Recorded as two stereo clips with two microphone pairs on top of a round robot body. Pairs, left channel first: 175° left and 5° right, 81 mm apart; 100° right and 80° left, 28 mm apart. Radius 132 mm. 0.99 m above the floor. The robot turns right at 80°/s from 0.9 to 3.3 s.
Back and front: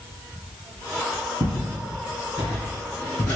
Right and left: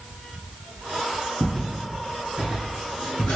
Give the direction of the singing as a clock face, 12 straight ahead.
No singing in this recording.